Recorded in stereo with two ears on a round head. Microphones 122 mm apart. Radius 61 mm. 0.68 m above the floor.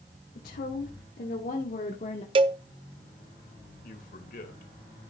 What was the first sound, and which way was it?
A woman speaking, 75° left (ahead or behind).